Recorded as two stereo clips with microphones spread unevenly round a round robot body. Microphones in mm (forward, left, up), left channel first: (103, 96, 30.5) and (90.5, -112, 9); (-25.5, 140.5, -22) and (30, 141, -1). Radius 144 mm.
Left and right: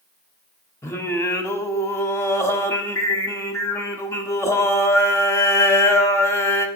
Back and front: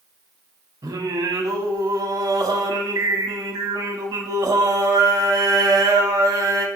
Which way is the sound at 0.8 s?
5° left.